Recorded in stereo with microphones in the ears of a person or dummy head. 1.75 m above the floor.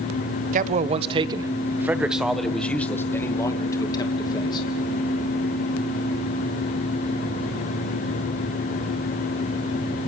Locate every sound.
0.5 s a man speaking: 45° right (ahead or behind), 1.2 m; by 4.7 s 25° left (ahead or behind), 2.5 m